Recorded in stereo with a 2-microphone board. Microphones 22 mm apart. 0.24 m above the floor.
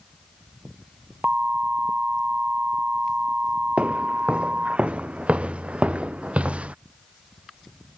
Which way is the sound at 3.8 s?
70° right (ahead or behind).